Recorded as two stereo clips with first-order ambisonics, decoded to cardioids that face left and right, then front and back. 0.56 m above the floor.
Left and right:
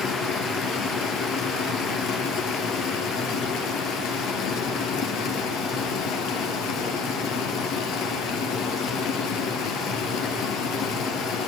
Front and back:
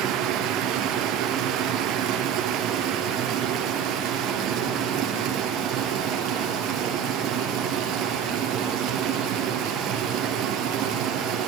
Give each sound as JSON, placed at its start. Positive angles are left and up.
{"t": 0.0, "sound": "running water", "azimuth_deg": 130, "distance_m": 3.0}